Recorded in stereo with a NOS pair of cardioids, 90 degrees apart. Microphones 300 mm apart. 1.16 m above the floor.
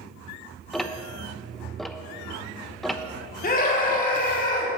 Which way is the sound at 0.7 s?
Straight ahead.